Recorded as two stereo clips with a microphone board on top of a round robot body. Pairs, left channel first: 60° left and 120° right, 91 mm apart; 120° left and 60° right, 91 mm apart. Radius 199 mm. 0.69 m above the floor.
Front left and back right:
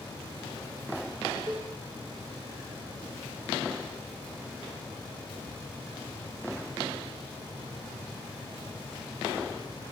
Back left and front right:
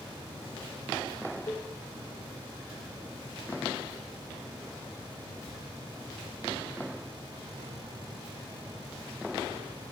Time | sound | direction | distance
1.5 | a cowbell | 175° right | 0.8 m